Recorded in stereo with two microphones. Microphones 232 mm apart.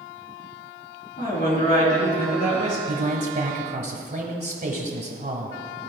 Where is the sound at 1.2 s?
40° left (ahead or behind), 3 m; by 2.8 s 35° left (ahead or behind), 3.5 m.